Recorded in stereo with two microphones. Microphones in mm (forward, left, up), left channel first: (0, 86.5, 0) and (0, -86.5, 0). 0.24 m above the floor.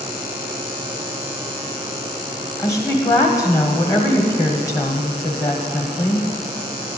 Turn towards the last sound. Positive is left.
turn(degrees=20)  # may be behind; listen again after turning